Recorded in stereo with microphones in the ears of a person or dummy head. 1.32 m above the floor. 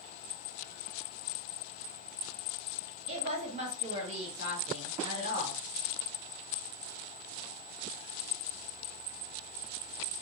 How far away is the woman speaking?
About 1.9 m.